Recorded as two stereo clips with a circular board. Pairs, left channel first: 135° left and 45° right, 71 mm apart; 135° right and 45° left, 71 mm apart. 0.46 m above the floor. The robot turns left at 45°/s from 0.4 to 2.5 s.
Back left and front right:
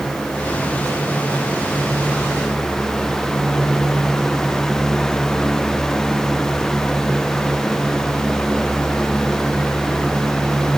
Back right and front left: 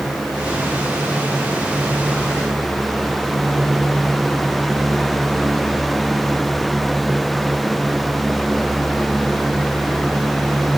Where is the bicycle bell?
No bicycle bell in this recording.